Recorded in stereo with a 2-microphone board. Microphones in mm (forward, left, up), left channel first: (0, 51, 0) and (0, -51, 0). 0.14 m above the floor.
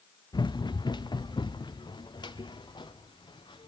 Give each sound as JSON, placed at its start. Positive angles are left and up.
{"t": 0.3, "sound": "running footsteps", "side_deg": 45, "distance_m": 0.8}